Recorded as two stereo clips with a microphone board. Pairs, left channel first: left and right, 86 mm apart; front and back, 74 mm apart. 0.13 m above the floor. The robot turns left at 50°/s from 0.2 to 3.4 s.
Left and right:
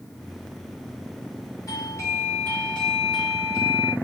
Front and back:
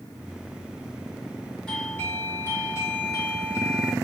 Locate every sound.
1.7 s a doorbell: 70° left, 3 m; by 3.9 s 15° right, 3 m